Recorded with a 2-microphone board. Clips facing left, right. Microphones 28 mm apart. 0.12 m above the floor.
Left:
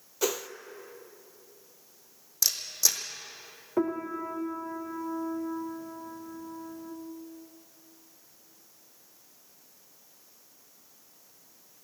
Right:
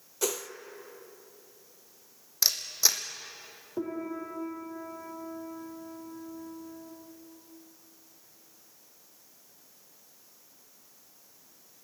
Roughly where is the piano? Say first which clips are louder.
Left 5 dB; left.